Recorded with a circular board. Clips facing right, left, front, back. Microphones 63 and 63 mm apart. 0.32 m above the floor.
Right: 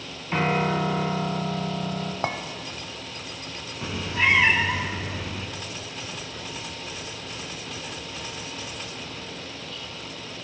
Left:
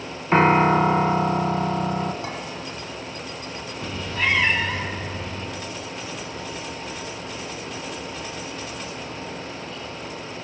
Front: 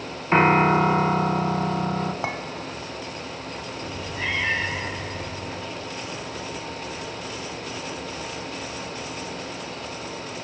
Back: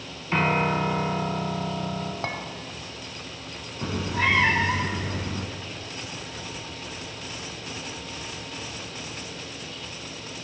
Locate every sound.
0.3 s a piano: 55° left, 0.5 m
2.2 s a clink: 70° right, 1.0 m
3.8 s a cat meowing: 170° right, 0.5 m